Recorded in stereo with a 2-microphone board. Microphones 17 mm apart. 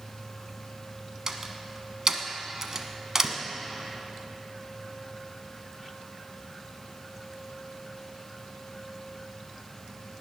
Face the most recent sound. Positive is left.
turn(degrees=-30)  # may be behind; listen again after turning